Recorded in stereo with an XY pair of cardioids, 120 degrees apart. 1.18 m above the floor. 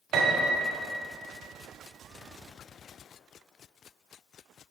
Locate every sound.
0.1 s a piano: 70° right, 2.0 m